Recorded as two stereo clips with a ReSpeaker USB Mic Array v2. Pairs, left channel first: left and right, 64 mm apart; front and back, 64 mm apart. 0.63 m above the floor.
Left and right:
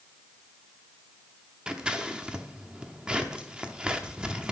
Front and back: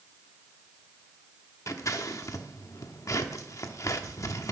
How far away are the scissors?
About 0.8 m.